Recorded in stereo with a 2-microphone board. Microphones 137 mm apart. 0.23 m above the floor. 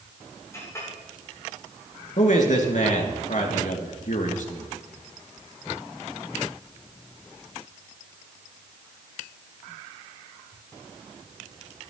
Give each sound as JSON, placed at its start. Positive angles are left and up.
{"t": 0.5, "sound": "a clink", "side_deg": 20, "distance_m": 7.5}
{"t": 2.2, "sound": "a man speaking", "side_deg": 65, "distance_m": 2.5}